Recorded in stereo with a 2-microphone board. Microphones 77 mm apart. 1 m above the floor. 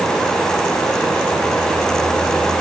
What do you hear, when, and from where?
Only background noise.